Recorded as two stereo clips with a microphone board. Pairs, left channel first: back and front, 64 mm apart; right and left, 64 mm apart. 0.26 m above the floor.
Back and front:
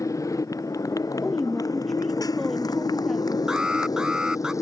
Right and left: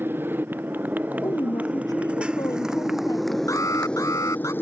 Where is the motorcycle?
145° left; by 4.6 s 145° right.